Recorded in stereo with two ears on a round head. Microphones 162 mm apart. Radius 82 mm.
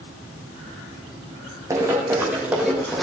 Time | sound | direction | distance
1.7 | running footsteps | 20° right (ahead or behind) | 5 m